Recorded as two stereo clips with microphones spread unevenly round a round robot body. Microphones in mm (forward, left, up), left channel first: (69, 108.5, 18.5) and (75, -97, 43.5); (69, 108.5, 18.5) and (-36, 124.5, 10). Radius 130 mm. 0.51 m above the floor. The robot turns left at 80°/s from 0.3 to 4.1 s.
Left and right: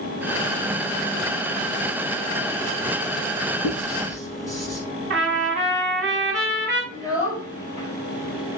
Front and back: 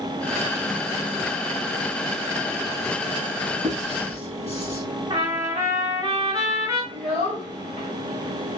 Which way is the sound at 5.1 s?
135° right.